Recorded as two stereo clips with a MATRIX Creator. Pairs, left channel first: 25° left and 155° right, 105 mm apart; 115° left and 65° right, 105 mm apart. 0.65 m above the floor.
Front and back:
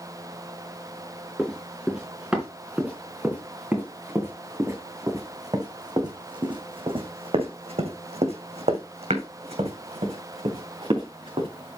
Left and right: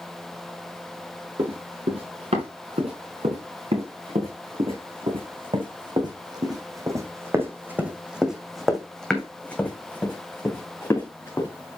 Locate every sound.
1.4 s running footsteps: 70° right, 5.5 m; by 11.5 s 170° left, 4 m